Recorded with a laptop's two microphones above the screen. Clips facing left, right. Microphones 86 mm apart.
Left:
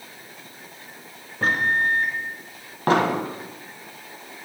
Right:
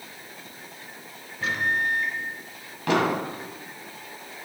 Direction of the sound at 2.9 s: 40° left (ahead or behind).